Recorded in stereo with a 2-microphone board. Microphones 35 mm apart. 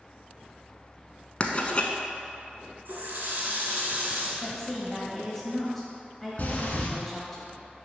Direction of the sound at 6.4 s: 45° left (ahead or behind).